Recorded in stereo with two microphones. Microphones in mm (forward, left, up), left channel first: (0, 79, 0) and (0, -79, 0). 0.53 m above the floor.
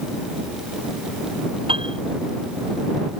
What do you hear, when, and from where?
1.7 s a piano: 35° right (ahead or behind)